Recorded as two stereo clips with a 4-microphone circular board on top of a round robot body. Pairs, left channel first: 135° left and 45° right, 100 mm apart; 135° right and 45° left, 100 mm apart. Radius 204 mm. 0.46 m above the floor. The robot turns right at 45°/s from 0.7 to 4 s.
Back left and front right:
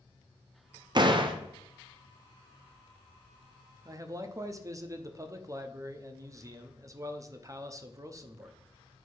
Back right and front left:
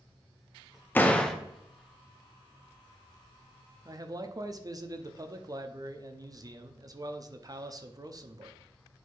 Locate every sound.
0.9 s a door slam: 70° right, 1.0 m; by 1.4 s 50° right, 1.0 m
3.9 s a man speaking: 5° right, 1.0 m; by 8.6 s 5° left, 1.0 m